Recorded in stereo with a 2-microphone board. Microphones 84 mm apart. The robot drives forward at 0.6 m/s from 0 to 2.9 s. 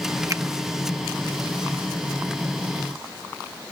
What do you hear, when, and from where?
0.3 s a finger snap: 40° right (ahead or behind)